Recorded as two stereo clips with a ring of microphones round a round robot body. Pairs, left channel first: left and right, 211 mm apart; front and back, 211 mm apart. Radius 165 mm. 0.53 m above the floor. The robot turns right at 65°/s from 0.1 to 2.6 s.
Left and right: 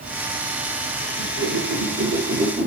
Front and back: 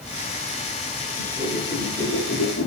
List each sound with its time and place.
1.2 s a whoosh: 125° right, 6.5 m; by 2.7 s 30° right, 6.5 m